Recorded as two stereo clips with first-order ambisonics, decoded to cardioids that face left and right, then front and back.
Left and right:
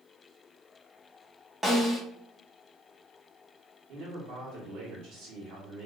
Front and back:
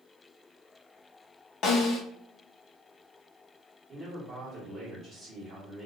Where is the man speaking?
110° right, 1.3 m.